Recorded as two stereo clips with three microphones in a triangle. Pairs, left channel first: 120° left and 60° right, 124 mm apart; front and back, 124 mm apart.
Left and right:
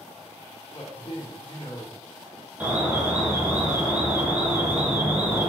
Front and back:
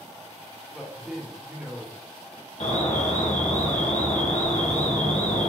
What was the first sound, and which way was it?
A man speaking, 95° left.